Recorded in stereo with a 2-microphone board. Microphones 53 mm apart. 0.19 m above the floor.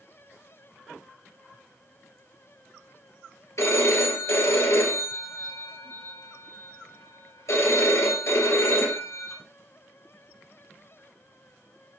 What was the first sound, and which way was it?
A phone ringing, 65° left (ahead or behind).